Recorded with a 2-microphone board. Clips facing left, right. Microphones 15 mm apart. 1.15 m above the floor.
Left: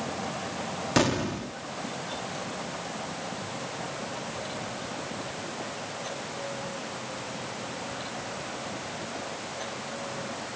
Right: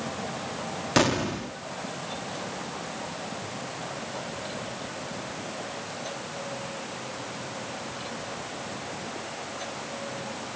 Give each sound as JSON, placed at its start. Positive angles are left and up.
{"t": 1.0, "sound": "an explosion", "side_deg": -10}